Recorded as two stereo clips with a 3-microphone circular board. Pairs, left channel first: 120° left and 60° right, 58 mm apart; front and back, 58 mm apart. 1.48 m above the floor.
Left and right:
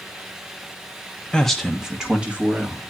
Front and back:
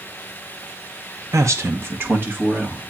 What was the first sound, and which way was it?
A man speaking, 165° right.